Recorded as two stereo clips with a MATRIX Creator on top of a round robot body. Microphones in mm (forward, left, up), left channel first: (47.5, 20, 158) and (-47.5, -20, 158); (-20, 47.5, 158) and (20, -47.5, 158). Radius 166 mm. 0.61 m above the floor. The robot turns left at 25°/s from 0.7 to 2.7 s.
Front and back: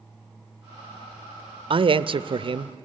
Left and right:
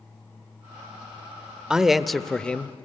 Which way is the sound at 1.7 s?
150° right.